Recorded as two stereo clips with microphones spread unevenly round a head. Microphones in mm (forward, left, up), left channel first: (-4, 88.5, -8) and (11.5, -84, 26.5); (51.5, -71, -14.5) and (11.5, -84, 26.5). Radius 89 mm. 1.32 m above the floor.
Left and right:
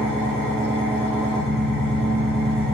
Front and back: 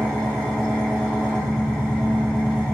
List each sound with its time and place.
0.0 s an engine running: 175° right, 1.3 m